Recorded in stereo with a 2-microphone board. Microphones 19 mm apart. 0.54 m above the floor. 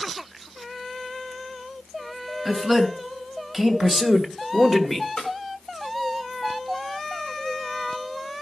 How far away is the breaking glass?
I don't hear breaking glass.